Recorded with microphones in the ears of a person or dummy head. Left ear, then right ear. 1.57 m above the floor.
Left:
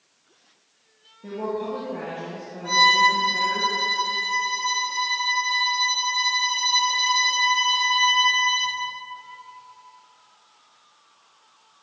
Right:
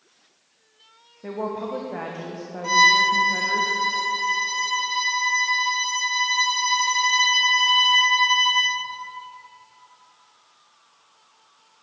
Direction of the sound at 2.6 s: 60° right (ahead or behind).